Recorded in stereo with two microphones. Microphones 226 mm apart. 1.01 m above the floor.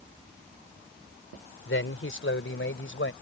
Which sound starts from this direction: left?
A man speaking, at 1.6 s.